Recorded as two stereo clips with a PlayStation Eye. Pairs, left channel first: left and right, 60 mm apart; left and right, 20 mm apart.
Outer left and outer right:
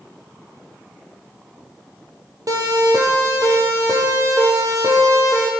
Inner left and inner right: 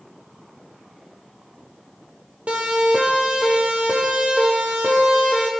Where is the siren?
80° right, 10 m; by 5.5 s 75° right (ahead or behind), 10.5 m.